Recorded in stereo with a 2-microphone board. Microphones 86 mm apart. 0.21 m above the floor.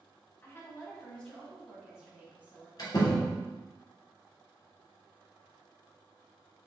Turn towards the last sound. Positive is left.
turn(degrees=50)  # may be behind; listen again after turning